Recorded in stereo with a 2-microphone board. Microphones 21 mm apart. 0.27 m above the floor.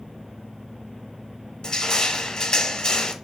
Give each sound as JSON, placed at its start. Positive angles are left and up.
{"t": 1.6, "sound": "crushing", "side_deg": 35, "distance_m": 0.6}